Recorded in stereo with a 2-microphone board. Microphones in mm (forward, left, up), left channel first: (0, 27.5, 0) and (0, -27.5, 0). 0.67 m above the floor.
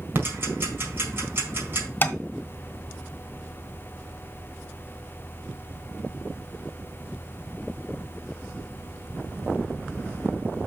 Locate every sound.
0.1 s ticking: 45° right (ahead or behind), 4.5 m
2.0 s tapping: 35° left (ahead or behind), 1.4 m